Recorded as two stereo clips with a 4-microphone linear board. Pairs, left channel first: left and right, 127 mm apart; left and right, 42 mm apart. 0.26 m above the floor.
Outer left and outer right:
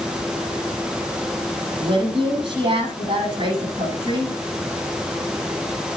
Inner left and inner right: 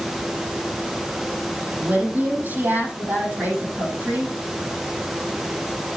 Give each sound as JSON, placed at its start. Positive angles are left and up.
{"t": 1.8, "sound": "a woman speaking", "side_deg": -45, "distance_m": 8.0}